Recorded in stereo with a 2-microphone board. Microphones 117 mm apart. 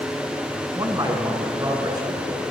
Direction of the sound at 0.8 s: 30° right (ahead or behind).